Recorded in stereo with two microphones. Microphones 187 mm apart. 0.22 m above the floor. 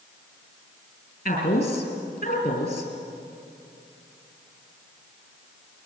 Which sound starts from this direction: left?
A woman speaking, at 1.2 s.